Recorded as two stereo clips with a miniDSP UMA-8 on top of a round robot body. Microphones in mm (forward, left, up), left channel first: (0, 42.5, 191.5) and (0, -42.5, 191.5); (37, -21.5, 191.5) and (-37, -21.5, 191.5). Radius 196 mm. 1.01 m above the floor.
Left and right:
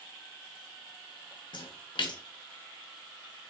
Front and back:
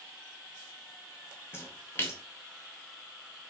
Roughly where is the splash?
Ahead left.